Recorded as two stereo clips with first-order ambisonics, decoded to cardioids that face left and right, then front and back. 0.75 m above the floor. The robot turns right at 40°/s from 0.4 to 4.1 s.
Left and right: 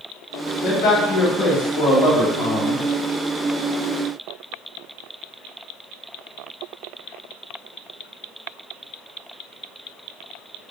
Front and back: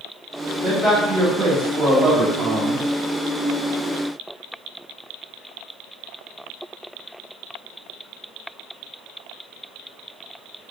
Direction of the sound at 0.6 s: 55° left.